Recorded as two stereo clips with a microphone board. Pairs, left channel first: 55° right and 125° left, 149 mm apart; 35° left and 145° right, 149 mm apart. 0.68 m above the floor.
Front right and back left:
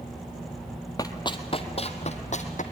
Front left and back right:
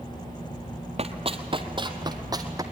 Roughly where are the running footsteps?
Behind right.